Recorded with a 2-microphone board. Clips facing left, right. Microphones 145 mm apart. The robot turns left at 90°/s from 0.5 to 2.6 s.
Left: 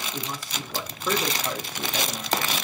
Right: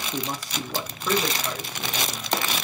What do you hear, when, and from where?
0.1 s a man speaking: 135° right, 1.0 m; by 2.6 s 35° left, 1.0 m